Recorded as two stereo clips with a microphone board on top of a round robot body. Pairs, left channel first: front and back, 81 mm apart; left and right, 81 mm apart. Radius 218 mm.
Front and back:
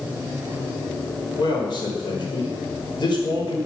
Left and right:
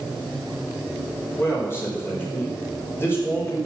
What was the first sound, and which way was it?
A man speaking, 30° left.